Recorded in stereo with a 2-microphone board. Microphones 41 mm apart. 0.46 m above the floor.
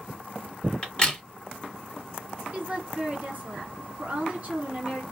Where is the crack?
25° left (ahead or behind), 1.8 m.